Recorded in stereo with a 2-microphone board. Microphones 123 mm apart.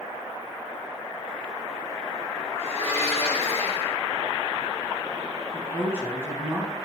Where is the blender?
60° right (ahead or behind), 2 m.